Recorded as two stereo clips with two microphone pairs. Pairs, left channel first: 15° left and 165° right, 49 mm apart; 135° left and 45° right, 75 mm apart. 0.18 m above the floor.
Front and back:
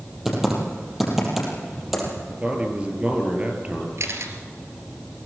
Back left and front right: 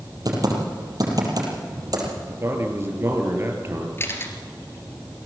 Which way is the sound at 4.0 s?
170° right.